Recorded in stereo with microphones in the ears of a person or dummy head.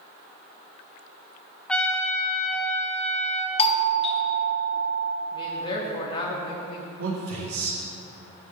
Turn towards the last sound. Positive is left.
turn(degrees=-80)